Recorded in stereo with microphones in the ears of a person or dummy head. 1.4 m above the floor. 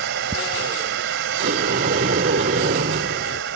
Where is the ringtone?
I don't hear a ringtone.